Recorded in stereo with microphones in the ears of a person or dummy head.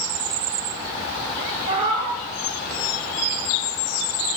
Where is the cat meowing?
40° right (ahead or behind), 1.9 m.